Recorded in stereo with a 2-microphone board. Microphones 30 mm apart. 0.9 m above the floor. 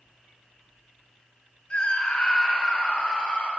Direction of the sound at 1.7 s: 35° left (ahead or behind).